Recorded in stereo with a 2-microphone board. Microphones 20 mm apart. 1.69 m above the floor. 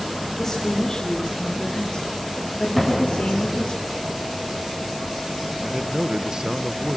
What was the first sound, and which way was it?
A woman speaking, 25° left (ahead or behind).